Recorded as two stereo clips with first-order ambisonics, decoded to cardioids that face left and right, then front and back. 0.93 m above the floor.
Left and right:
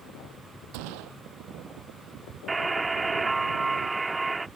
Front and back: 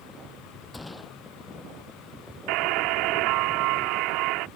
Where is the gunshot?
85° right.